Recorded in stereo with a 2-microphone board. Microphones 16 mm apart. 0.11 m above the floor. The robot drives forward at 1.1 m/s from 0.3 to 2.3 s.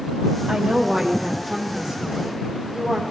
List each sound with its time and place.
0.5 s a woman speaking: 60° right (ahead or behind), 3 m; by 3.0 s 40° right (ahead or behind), 4 m